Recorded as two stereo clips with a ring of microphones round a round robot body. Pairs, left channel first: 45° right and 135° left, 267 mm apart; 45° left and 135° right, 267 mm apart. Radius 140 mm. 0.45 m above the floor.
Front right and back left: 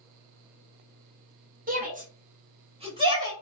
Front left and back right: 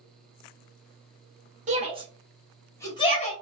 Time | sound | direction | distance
1.7 | a shout | 175° left | 1.6 m